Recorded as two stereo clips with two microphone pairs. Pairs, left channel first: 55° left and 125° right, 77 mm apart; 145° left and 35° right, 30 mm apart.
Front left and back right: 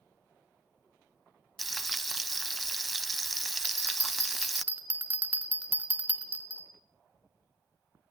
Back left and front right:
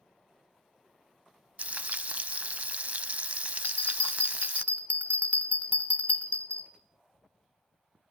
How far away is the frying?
About 0.5 m.